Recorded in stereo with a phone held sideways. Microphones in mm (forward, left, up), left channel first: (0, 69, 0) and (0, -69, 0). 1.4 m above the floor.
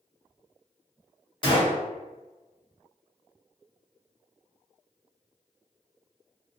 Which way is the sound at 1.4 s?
35° left (ahead or behind).